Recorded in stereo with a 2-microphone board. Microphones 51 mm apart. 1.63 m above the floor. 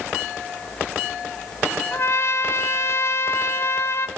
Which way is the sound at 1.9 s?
55° left (ahead or behind).